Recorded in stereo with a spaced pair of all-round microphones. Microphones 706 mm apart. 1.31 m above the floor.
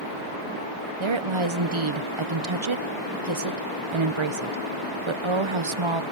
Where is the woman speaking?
45° right (ahead or behind), 0.9 m.